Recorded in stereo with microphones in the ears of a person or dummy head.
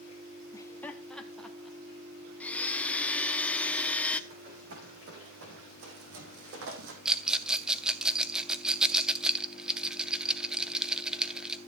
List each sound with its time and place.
0.5 s laughter: 10° left (ahead or behind), 0.6 m; by 1.8 s 5° right (ahead or behind), 1.3 m
2.4 s a blender: 10° left (ahead or behind), 0.8 m
4.3 s running footsteps: 65° right (ahead or behind), 5 m; by 7.0 s 60° right (ahead or behind), 2.5 m
7.0 s a rattle: centre (ahead or behind), 0.6 m